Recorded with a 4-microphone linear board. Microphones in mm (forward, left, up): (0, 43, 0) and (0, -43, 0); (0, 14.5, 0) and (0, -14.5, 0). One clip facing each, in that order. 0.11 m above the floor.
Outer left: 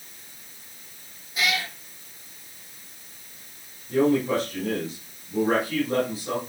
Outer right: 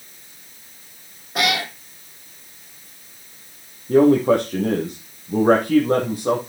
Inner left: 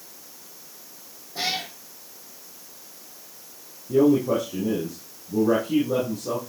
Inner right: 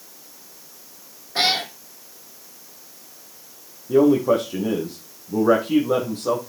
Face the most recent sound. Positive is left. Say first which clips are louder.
# outer right 7 dB, inner right 3 dB
turn(degrees=-55)  # may be behind; listen again after turning